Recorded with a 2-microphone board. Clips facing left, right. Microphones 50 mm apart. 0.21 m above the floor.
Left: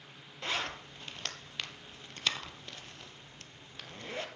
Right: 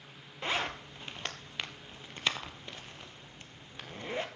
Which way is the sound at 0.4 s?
15° right (ahead or behind).